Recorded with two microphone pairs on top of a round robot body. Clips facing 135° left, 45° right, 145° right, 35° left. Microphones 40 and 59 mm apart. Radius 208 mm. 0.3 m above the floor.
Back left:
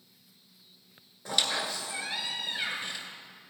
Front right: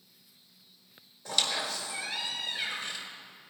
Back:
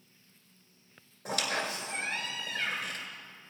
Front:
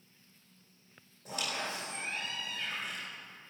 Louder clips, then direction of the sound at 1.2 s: Back left 1 dB, back 5 dB; 155° right.